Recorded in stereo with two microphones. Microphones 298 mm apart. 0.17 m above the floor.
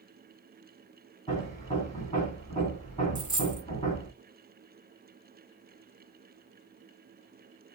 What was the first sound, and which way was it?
Hammering, 25° left (ahead or behind).